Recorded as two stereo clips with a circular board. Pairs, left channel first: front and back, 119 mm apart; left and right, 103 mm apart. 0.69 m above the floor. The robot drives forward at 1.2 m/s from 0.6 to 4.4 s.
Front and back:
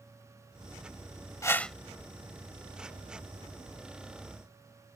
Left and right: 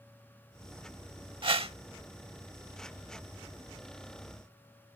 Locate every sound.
1.4 s a whoosh: 60° right; by 1.8 s 90° right